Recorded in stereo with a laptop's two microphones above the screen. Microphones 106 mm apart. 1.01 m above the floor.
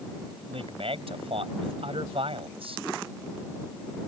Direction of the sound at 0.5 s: 70° right (ahead or behind).